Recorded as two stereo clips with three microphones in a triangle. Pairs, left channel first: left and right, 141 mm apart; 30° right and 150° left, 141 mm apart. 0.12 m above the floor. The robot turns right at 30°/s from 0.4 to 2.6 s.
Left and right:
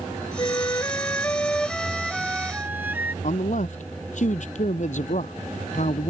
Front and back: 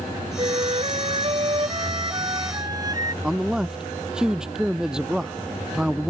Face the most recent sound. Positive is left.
turn(degrees=65)